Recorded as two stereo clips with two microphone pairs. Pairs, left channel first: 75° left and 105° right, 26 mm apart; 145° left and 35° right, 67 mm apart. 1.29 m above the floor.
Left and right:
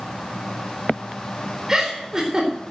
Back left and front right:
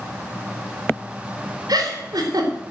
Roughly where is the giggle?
Ahead right.